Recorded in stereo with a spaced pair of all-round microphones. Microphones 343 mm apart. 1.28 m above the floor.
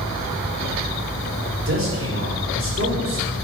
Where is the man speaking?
40° right (ahead or behind), 4.5 m.